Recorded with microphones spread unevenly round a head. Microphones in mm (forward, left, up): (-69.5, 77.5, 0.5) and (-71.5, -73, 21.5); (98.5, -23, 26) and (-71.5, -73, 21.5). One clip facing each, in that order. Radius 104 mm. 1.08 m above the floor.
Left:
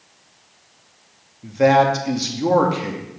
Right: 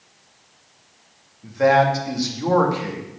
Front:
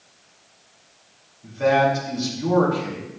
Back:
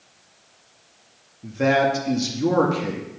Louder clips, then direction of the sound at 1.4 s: Left 2 dB, front 1 dB; 155° left.